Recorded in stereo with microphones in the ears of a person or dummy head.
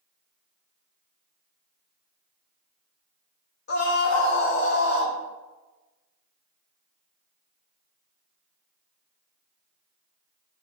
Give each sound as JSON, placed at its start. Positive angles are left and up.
{"t": 3.7, "sound": "a scream", "side_deg": 55, "distance_m": 1.9}